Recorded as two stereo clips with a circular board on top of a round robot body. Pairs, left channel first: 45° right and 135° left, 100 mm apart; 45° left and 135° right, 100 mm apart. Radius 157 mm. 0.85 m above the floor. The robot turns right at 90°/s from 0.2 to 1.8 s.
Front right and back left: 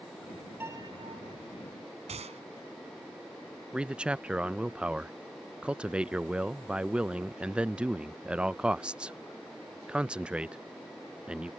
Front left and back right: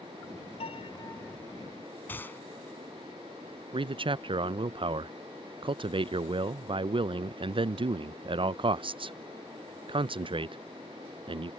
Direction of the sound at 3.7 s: 145° right.